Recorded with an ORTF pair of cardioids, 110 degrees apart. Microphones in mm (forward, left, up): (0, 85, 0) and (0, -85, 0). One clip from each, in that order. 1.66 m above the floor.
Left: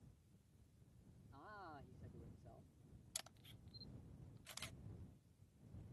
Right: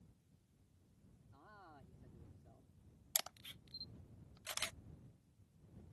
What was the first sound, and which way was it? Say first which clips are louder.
A man speaking: left 4 dB; 20° left.